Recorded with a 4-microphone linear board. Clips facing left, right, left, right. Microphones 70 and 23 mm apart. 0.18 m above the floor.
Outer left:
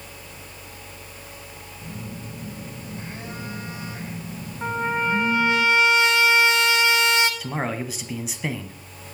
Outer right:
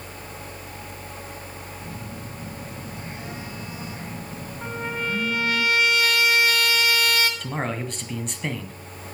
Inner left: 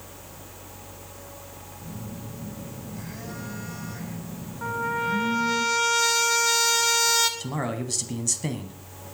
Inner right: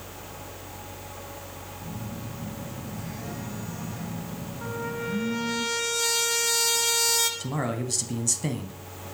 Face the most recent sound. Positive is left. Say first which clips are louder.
# outer left 1 dB, even
turn(degrees=5)  # may be behind; listen again after turning